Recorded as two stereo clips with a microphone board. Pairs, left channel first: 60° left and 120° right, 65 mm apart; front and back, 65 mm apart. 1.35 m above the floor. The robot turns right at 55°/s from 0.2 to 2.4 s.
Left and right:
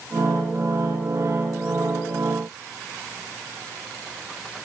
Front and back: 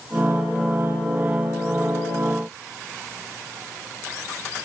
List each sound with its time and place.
Only background noise.